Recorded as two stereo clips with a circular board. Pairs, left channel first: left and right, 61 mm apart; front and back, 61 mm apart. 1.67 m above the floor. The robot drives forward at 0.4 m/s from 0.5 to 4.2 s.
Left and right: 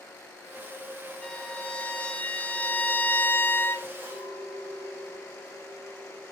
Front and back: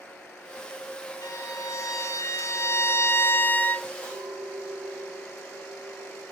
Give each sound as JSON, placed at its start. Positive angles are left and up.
{"t": 1.2, "sound": "a violin", "azimuth_deg": 20, "distance_m": 1.5}
{"t": 4.0, "sound": "a clink", "azimuth_deg": -135, "distance_m": 7.0}